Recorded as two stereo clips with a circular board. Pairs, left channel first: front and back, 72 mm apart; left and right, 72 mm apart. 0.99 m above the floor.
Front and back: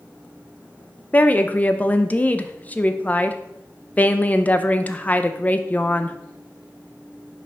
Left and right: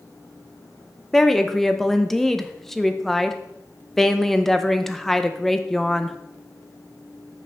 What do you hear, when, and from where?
1.1 s a woman speaking: 15° left, 0.5 m